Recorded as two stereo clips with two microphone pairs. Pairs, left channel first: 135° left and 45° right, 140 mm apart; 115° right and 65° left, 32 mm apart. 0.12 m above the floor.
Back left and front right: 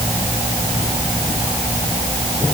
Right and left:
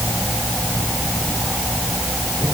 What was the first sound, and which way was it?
Only background noise.